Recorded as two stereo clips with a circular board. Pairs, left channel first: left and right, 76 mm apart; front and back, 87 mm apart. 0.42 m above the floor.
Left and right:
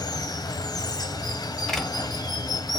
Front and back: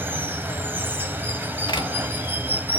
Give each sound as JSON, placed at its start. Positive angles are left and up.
{"t": 0.0, "sound": "running water", "azimuth_deg": 115, "distance_m": 1.1}
{"t": 1.7, "sound": "a door slam", "azimuth_deg": 5, "distance_m": 1.6}